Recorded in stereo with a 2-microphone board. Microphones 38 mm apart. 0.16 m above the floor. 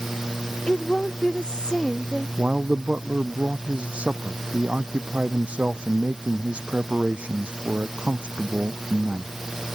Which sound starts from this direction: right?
A man speaking, at 2.4 s.